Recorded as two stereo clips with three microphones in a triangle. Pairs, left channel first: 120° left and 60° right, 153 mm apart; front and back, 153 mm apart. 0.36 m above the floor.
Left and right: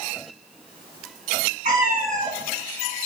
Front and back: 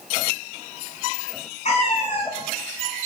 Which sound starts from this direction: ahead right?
A cat meowing, at 1.6 s.